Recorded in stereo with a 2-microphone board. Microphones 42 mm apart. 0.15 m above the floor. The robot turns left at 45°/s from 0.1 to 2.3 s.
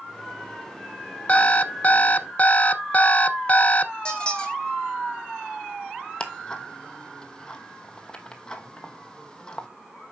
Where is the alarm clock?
120° left, 0.5 m; by 3.9 s 75° left, 0.5 m.